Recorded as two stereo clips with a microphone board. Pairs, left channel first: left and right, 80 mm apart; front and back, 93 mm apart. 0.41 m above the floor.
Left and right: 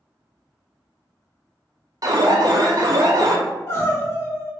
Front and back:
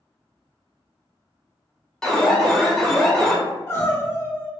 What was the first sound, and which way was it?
An alarm, 85° right.